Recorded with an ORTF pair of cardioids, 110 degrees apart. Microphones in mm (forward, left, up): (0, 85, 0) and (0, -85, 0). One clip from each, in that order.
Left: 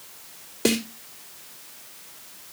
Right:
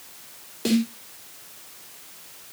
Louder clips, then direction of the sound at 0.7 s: Left 1 dB; 35° left.